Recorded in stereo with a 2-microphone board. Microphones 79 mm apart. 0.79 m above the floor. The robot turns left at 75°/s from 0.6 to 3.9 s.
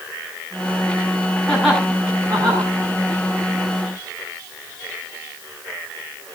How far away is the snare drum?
No snare drum in this recording.